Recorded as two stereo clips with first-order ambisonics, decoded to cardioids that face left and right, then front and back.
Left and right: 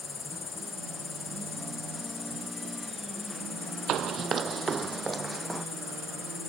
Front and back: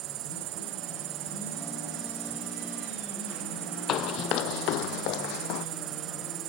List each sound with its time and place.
0.0 s an insect: 160° left
3.9 s running footsteps: 45° right; by 5.7 s 5° right